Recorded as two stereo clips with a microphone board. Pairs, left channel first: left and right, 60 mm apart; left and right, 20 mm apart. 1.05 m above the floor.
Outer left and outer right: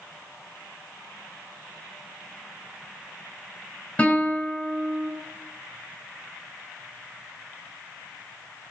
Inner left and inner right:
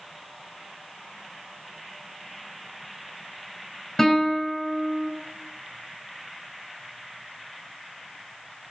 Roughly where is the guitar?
Left.